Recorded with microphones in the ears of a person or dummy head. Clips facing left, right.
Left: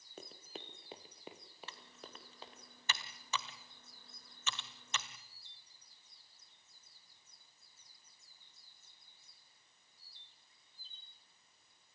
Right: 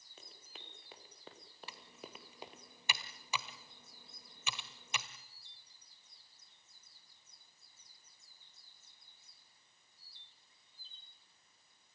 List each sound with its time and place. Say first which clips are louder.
0.2 s running footsteps: left 8 dB; 45° left (ahead or behind), 2 m; by 2.6 s 20° right (ahead or behind), 2 m
1.7 s typing on a keyboard: right 4 dB; 15° right (ahead or behind), 1.6 m